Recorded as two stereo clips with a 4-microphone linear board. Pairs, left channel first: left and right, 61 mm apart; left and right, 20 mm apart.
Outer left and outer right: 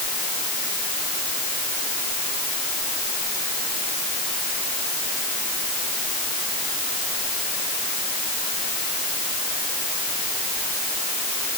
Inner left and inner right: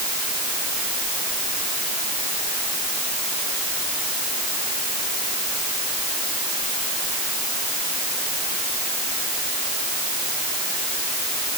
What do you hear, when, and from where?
Only background noise.